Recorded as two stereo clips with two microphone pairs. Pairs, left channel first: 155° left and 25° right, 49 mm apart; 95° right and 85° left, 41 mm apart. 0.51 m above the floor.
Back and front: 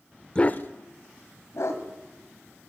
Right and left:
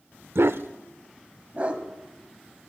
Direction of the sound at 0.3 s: 85° left.